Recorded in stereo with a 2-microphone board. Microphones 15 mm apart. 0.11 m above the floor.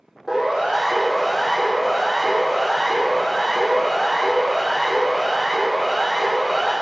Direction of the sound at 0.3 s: 35° right (ahead or behind).